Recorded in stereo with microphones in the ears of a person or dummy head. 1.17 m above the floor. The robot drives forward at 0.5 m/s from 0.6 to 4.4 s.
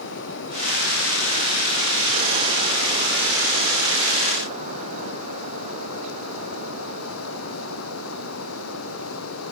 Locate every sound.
0.0 s running water: 65° left (ahead or behind); by 9.5 s 75° left (ahead or behind)